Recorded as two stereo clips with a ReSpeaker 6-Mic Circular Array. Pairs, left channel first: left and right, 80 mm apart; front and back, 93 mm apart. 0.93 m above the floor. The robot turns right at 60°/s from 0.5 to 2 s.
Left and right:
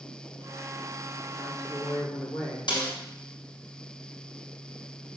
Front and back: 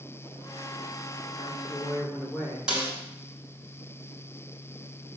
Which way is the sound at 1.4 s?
40° left.